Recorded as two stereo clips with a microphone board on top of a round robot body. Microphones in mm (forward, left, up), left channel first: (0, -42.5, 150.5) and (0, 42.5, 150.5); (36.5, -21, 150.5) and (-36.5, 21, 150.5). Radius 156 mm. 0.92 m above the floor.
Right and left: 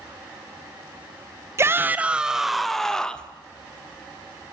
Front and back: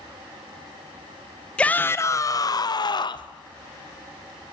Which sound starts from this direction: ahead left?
A shout, at 1.6 s.